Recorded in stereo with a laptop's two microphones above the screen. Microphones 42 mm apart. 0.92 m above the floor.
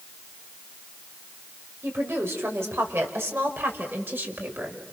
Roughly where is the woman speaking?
Right.